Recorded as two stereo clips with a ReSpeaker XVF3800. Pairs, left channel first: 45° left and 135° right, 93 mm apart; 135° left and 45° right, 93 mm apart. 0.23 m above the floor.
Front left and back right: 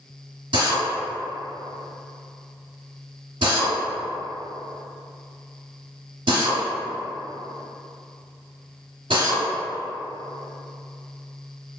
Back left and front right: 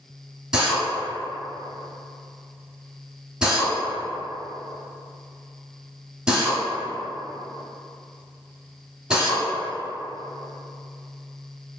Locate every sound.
0.5 s a drill: 125° right, 1.2 m